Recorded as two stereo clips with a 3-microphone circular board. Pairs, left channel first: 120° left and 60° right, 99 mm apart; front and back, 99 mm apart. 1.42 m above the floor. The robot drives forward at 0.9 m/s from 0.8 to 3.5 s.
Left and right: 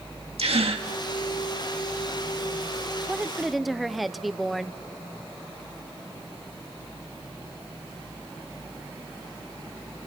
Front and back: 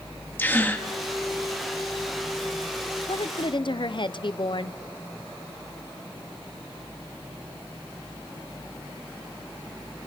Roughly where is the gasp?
Right.